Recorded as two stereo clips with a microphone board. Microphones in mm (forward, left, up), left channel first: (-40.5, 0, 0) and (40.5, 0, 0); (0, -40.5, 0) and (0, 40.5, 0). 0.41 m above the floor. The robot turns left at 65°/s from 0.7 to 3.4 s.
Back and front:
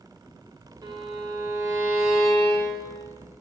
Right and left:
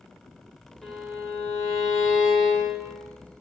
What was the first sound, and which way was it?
A violin, 5° right.